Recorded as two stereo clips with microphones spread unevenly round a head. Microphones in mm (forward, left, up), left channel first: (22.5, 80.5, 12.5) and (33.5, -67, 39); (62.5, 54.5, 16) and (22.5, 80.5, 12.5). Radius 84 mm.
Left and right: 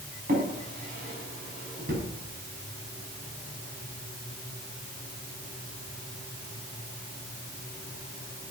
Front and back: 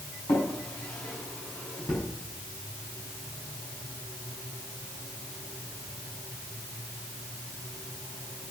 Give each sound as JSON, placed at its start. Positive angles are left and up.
{"t": 0.3, "sound": "a drawer", "azimuth_deg": -60, "distance_m": 6.0}